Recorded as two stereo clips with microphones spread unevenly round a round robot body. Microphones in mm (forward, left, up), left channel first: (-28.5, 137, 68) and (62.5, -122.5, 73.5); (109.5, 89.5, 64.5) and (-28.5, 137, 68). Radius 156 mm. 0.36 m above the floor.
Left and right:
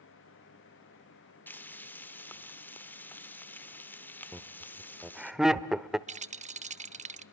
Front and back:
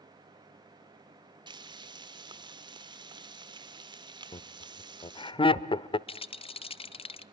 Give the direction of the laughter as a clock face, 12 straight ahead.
11 o'clock.